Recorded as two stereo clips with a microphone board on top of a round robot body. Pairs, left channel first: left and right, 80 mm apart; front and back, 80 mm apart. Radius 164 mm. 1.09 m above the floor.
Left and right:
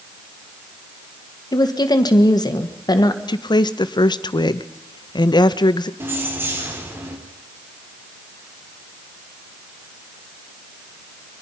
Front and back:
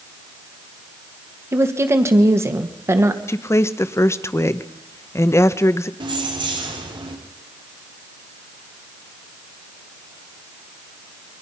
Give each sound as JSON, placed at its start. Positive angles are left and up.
{"t": 1.5, "sound": "a woman speaking", "azimuth_deg": 125, "distance_m": 1.9}
{"t": 3.3, "sound": "a woman speaking", "azimuth_deg": 60, "distance_m": 0.9}
{"t": 6.0, "sound": "keys jangling", "azimuth_deg": -155, "distance_m": 3.0}